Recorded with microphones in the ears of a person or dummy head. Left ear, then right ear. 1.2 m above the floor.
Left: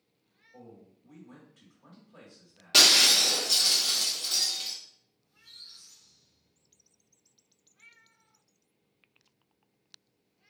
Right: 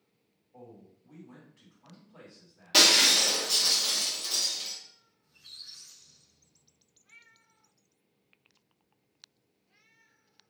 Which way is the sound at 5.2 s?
70° right (ahead or behind).